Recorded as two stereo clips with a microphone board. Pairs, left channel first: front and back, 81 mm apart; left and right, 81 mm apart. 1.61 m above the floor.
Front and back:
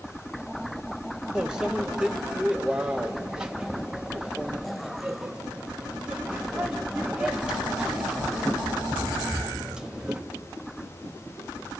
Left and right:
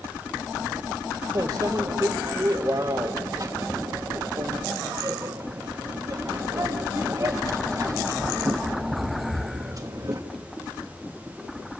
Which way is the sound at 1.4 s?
105° right.